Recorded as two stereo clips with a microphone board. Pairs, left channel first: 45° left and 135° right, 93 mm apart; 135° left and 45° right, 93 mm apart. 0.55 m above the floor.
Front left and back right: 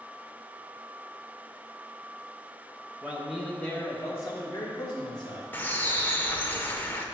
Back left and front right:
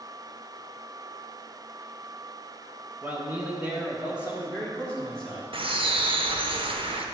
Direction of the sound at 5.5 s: 25° right.